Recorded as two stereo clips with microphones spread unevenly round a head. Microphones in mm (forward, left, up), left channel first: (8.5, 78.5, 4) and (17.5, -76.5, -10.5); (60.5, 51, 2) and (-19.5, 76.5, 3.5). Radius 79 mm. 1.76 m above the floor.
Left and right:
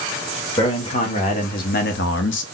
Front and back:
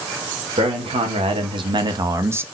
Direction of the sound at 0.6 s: 155° left.